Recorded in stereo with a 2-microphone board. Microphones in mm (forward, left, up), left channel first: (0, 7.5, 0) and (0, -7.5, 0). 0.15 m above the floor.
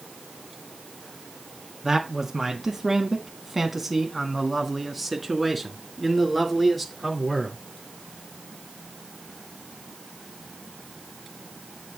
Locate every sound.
1.8 s a man speaking: 25° right (ahead or behind), 1.7 m; by 7.6 s 10° left (ahead or behind), 3 m